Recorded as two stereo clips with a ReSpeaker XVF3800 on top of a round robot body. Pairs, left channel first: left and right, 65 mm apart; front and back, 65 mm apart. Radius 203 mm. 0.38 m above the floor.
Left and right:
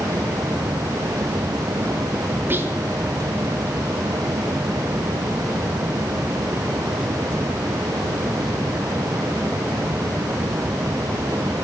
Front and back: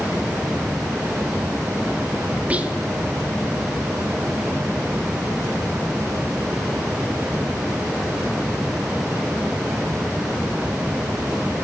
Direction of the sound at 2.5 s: 120° right.